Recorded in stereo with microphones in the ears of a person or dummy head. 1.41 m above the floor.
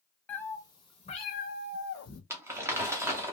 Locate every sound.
0.3 s a cat meowing: 5° left (ahead or behind), 0.9 m; by 2.2 s 60° left (ahead or behind), 1.1 m
2.3 s crumpling: 15° right (ahead or behind), 0.6 m